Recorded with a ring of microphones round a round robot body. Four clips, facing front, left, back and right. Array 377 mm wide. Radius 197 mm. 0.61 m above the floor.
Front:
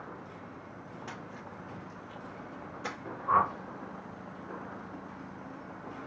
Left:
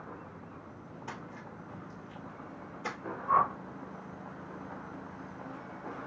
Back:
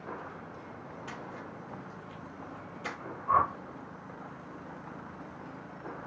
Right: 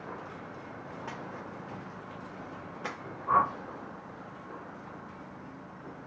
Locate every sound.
1.1 s a splash: 75° right, 1.1 m
3.3 s a whoosh: 45° right, 1.7 m